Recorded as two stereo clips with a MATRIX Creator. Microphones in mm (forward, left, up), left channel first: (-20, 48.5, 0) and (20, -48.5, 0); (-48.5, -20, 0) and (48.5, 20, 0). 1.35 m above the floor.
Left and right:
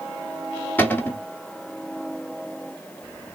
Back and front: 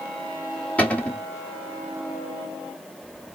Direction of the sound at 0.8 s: 150° left.